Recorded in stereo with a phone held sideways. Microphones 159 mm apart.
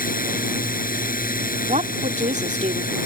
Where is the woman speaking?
50° right (ahead or behind).